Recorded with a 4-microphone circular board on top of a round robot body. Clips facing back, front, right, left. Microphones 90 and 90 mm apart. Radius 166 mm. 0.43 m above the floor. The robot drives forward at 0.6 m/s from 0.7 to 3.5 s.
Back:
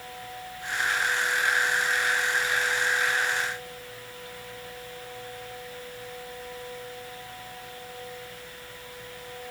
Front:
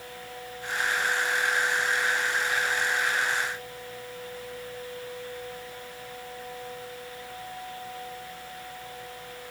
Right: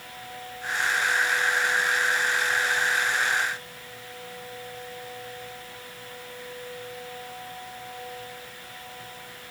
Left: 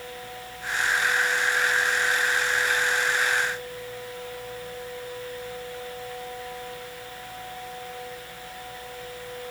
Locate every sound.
Only background noise.